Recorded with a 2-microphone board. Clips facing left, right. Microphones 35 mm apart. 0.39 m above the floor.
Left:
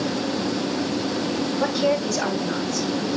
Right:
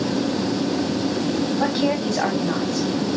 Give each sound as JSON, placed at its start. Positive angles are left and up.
{"t": 1.6, "sound": "a woman speaking", "side_deg": -35, "distance_m": 3.0}